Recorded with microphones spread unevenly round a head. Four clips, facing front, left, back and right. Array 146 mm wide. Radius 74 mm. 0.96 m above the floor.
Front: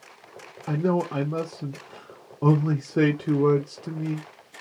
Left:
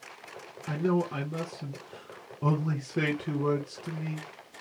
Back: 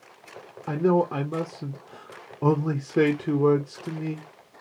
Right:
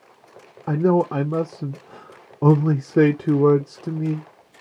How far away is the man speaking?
About 0.5 m.